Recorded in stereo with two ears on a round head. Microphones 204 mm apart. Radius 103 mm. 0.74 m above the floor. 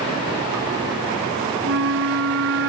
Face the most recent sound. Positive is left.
turn(degrees=-65)  # may be behind; listen again after turning